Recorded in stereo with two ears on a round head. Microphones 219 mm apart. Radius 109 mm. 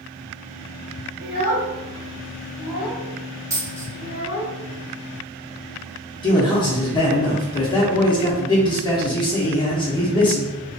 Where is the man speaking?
20° left (ahead or behind), 0.6 m.